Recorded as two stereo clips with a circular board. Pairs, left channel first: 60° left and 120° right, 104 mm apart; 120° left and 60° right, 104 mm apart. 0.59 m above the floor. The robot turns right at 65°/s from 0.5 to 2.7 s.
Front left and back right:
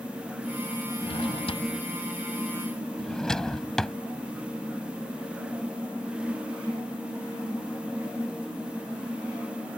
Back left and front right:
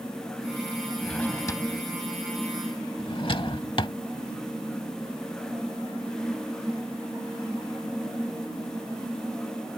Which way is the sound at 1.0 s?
35° left.